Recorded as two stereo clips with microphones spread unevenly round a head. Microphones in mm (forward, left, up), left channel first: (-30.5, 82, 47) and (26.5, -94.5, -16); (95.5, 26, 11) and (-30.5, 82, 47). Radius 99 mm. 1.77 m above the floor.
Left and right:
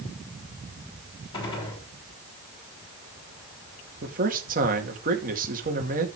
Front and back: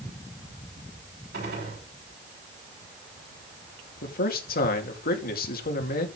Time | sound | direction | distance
1.3 | a gunshot | 175° left | 7 m
4.0 | a man speaking | 25° right | 2.5 m